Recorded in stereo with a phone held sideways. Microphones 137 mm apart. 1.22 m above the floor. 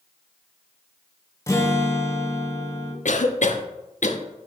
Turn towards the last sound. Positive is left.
turn(degrees=65)  # may be behind; listen again after turning